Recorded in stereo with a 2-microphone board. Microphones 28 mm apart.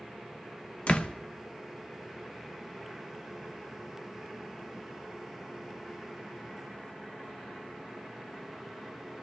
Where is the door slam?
50° left (ahead or behind), 0.8 m.